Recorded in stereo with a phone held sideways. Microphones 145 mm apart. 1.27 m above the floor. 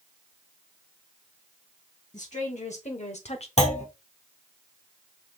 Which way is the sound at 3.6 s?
50° left (ahead or behind).